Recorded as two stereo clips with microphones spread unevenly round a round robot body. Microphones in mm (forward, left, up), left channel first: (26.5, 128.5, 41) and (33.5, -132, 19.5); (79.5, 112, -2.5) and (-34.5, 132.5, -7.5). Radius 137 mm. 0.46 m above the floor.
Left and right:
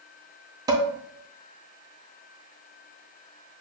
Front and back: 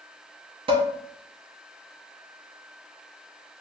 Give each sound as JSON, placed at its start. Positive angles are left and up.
{"t": 0.7, "sound": "dishes clattering", "azimuth_deg": -155, "distance_m": 0.6}